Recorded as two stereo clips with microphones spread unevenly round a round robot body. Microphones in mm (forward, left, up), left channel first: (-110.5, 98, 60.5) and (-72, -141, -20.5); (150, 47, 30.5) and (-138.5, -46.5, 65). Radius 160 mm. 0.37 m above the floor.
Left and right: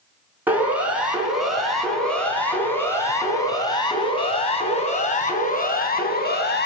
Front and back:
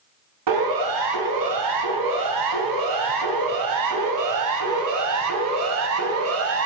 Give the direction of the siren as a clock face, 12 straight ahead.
5 o'clock.